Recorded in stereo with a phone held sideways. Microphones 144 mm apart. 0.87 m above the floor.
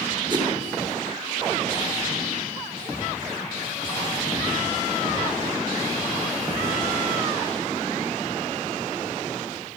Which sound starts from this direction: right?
A whoosh, at 0.3 s.